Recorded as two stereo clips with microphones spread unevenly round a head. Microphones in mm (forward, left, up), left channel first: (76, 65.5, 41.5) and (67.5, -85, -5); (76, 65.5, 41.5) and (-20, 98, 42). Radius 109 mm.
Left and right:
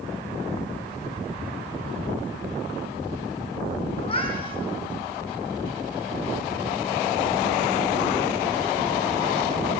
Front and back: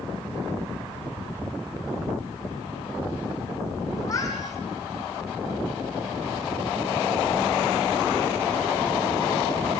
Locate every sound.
4.0 s a cat meowing: 35° left, 8 m